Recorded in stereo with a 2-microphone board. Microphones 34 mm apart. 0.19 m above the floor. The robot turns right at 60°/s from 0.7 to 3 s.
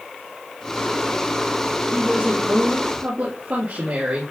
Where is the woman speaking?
165° right, 4 m; by 4.3 s 100° right, 4 m.